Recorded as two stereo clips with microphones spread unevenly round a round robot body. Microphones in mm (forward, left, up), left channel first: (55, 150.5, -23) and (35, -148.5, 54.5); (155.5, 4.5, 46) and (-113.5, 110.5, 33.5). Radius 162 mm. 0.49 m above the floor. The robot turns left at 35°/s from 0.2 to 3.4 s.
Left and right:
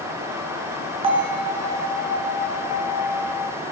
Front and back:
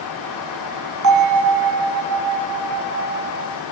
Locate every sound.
1.0 s a bell: 170° right, 3.5 m; by 3.6 s 110° left, 3.5 m